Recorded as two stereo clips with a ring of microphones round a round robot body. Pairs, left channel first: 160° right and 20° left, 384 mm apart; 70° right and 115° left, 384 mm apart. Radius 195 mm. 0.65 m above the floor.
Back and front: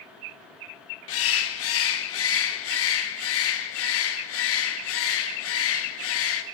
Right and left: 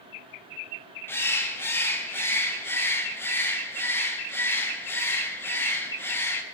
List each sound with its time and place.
1.1 s a bird: 145° right, 0.9 m